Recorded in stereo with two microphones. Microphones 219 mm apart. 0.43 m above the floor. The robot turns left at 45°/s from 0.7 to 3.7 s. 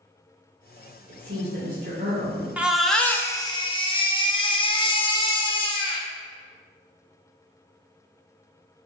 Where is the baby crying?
170° right, 0.5 m; by 6.1 s 140° left, 0.5 m.